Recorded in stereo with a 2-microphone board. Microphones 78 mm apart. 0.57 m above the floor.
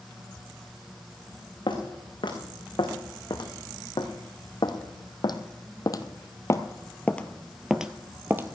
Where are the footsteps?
80° left, 3.5 m; by 8.6 s 30° right (ahead or behind), 1.0 m.